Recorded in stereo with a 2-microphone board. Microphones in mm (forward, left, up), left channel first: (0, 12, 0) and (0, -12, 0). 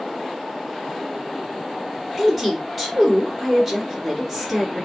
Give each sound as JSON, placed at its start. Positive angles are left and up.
{"t": 2.2, "sound": "a woman speaking", "side_deg": -10, "distance_m": 2.5}